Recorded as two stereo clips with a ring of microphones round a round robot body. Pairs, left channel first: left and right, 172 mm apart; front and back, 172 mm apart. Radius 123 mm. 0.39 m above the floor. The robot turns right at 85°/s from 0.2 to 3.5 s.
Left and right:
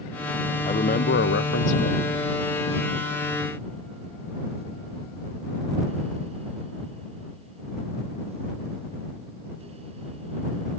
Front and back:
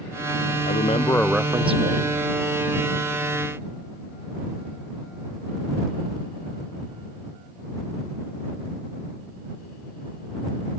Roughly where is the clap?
I don't hear a clap.